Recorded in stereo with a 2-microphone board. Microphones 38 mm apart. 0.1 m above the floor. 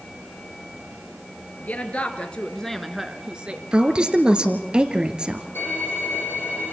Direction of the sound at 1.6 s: 45° left (ahead or behind).